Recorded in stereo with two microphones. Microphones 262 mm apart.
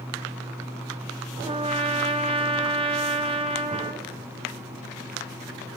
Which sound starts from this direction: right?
A trumpet, at 1.4 s.